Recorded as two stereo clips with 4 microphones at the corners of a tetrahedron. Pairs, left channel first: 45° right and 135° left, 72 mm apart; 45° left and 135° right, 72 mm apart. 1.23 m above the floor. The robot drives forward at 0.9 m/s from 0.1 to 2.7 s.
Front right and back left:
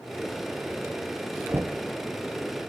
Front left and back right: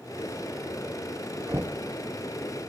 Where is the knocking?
175° right, 0.8 m; by 1.9 s straight behind, 1.1 m.